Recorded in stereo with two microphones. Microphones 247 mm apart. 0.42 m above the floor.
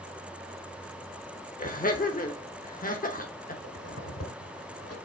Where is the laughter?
35° left (ahead or behind), 0.9 m.